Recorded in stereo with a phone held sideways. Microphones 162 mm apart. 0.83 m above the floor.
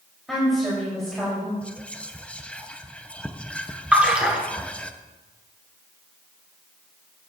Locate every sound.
0.3 s a woman speaking: centre (ahead or behind), 3.5 m
1.6 s whispering: 10° left (ahead or behind), 0.7 m
3.9 s a splash: 5° right (ahead or behind), 2 m